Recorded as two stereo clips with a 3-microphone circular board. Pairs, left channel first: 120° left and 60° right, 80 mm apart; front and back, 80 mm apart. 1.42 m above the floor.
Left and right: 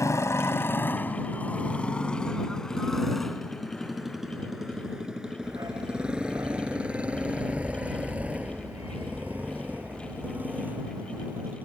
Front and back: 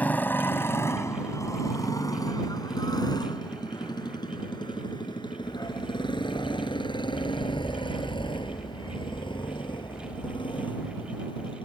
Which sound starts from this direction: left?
A motorcycle, at 0.0 s.